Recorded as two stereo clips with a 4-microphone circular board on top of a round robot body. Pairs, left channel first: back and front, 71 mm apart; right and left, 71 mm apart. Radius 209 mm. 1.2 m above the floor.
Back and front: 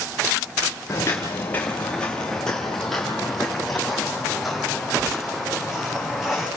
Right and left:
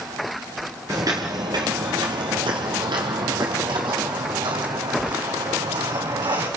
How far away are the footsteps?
About 1.5 m.